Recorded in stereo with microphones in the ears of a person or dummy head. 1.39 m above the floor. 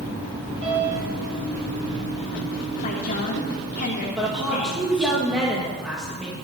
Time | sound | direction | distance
0.6 | a piano | 35° right (ahead or behind) | 6.5 m
2.8 | a woman speaking | 40° left (ahead or behind) | 2.5 m
4.2 | a woman speaking | centre (ahead or behind) | 1.9 m